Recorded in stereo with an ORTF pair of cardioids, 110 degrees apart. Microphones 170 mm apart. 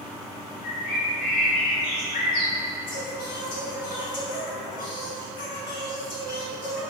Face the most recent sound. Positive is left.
turn(degrees=55)